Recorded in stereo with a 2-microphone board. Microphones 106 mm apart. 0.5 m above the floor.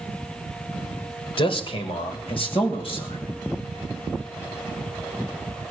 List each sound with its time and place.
1.4 s a man speaking: 60° left (ahead or behind), 2 m